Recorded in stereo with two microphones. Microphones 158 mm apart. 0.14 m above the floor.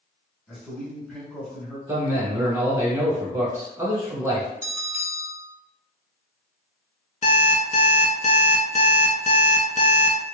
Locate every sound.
0.5 s a man speaking: centre (ahead or behind), 1.2 m
1.9 s a man speaking: 20° right (ahead or behind), 1.1 m
4.6 s a bell: 20° right (ahead or behind), 1.1 m
7.2 s an alarm clock: 50° left (ahead or behind), 0.6 m